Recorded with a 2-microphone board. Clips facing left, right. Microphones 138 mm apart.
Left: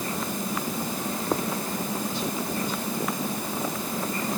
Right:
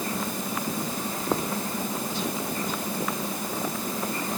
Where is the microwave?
No microwave in this recording.